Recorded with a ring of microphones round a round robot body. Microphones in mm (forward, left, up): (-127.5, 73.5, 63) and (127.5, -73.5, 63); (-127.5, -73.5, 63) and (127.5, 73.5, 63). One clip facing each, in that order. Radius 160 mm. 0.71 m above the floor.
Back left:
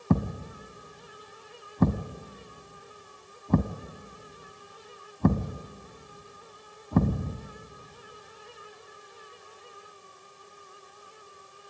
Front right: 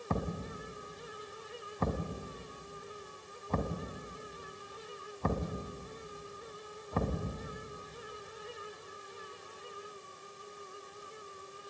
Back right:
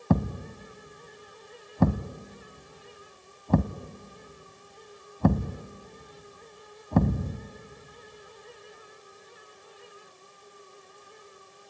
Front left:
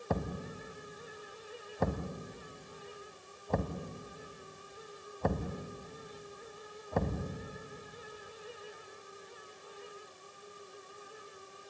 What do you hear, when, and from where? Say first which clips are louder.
0.1 s a thud: back left 9 dB, back right 10 dB; 170° right, 0.9 m